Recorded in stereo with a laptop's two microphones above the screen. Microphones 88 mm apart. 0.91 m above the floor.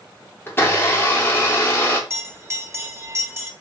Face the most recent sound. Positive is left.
turn(degrees=-30)  # may be behind; listen again after turning